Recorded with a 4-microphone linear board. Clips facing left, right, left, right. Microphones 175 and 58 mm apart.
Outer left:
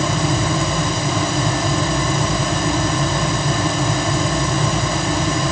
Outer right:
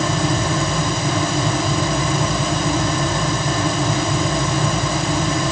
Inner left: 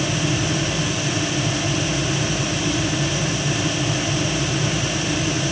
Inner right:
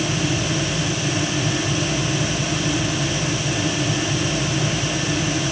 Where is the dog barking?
No dog barking in this recording.